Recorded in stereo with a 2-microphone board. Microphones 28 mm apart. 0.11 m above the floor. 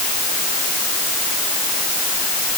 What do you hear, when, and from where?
Only background noise.